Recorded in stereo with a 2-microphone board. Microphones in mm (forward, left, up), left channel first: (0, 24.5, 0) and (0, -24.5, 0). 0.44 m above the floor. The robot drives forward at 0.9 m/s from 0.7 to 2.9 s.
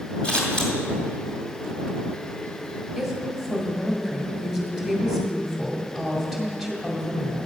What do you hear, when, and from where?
0.2 s scissors: 20° left (ahead or behind), 2 m
3.0 s a woman speaking: centre (ahead or behind), 2 m